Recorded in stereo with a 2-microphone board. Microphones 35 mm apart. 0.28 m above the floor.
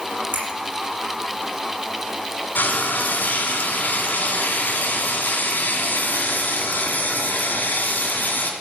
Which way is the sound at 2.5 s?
65° left (ahead or behind).